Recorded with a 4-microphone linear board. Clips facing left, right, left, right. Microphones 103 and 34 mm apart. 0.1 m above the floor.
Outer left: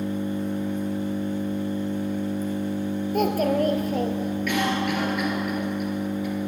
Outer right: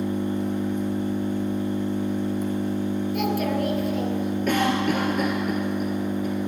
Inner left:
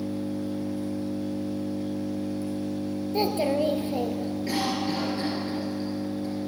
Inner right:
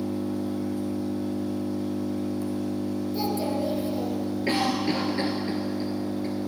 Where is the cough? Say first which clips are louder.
Outer right 3 dB, inner right 3 dB; 40° right (ahead or behind), 1.6 m.